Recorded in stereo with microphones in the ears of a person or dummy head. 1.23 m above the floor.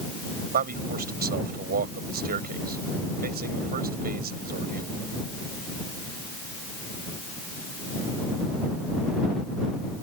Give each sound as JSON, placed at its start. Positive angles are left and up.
{"t": 0.5, "sound": "a man speaking", "side_deg": -55}